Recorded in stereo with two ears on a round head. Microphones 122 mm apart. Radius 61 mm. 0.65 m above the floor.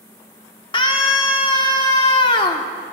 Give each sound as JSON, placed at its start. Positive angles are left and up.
{"t": 0.7, "sound": "a scream", "side_deg": 35, "distance_m": 1.5}